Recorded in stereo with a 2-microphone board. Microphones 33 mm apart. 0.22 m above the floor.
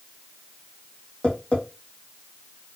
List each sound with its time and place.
1.2 s tapping: 30° left (ahead or behind), 2.5 m